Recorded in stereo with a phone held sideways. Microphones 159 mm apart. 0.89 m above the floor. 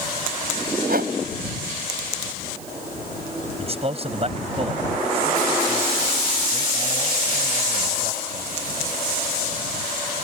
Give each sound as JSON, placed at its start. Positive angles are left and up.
{"t": 0.9, "sound": "a whoosh", "side_deg": -75}
{"t": 3.6, "sound": "a man speaking", "side_deg": -40}